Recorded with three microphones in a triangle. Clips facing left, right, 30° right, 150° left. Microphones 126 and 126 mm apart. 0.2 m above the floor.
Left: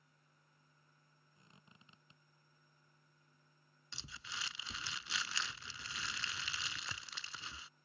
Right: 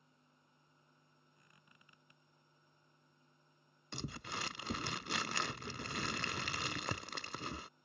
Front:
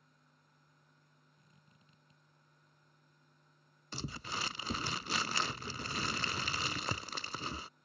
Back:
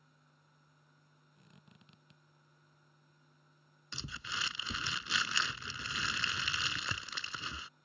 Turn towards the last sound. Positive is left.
turn(degrees=-70)